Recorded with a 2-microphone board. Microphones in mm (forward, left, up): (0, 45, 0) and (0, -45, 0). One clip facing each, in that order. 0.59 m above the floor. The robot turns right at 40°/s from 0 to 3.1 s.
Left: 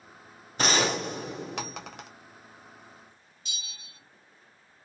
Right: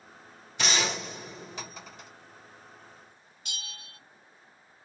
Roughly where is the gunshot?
Ahead left.